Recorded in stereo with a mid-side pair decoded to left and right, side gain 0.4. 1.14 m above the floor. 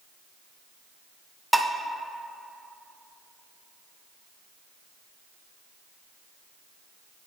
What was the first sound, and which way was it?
Dishes clattering, 10° right.